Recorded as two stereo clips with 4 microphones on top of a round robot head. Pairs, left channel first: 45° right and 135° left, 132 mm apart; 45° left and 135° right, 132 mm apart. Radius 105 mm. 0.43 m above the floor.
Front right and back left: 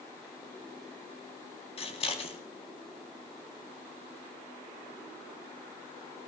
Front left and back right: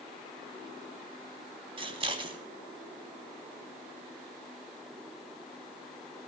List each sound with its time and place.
1.8 s scissors: 85° right, 4 m